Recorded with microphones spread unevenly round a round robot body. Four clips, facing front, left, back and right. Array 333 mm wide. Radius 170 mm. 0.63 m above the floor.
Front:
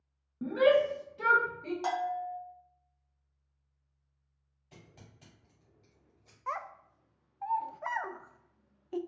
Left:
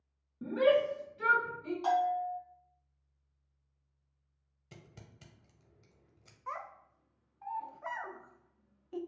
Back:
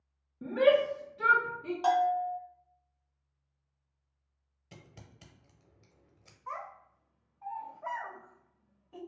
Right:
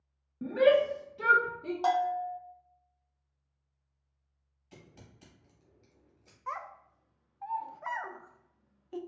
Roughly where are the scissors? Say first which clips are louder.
Right 1 dB, back 2 dB; behind left.